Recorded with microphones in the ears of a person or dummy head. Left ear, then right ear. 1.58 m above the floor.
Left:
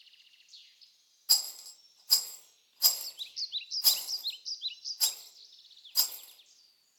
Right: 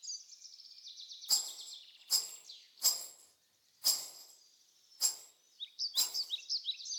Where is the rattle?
25° left (ahead or behind), 0.6 m.